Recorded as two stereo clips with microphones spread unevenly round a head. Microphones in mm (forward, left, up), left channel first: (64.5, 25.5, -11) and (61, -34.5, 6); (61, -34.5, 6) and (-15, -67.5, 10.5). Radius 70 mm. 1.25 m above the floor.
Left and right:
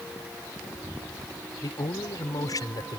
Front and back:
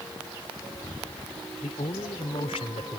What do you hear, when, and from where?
1.6 s a man speaking: 65° left